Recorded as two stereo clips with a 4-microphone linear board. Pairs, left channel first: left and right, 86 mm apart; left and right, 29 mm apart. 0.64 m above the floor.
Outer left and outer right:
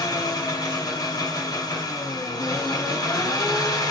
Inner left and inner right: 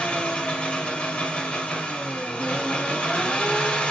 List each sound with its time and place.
0.0 s an engine running: 50° left (ahead or behind), 1.7 m